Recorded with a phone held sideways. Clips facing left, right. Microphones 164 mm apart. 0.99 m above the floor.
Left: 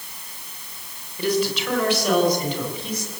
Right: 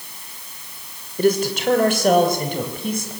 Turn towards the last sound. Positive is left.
turn(degrees=-50)  # may be behind; listen again after turning